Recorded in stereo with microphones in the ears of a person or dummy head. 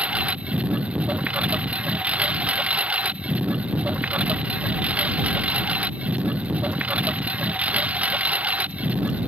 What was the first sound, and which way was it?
A lawn mower, centre (ahead or behind).